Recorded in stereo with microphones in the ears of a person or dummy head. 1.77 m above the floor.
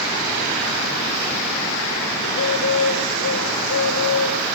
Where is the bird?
55° left (ahead or behind), 1.0 m.